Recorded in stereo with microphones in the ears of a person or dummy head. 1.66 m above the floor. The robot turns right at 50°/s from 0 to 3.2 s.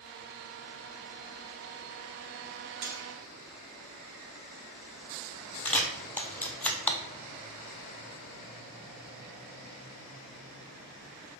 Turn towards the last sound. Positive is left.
turn(degrees=10)  # may be behind; listen again after turning